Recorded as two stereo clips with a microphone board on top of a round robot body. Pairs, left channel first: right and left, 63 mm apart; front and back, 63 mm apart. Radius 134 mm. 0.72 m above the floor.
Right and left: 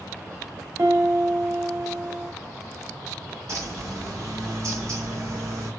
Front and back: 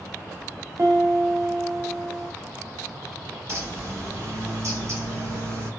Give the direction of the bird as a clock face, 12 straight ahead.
8 o'clock.